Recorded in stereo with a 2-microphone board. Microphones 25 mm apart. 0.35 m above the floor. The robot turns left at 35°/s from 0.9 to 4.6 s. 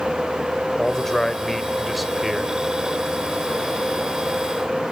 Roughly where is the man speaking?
Ahead left.